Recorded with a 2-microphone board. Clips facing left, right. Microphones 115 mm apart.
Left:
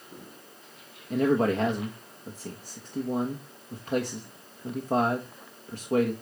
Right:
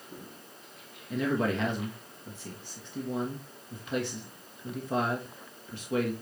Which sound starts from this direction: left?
A man speaking, at 1.1 s.